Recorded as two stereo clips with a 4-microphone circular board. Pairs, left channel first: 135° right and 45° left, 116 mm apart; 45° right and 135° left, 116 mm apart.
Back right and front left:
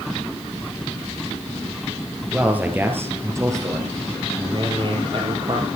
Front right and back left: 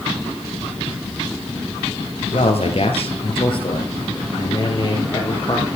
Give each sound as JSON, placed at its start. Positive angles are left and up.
{"t": 2.3, "sound": "a man speaking", "azimuth_deg": -35, "distance_m": 2.5}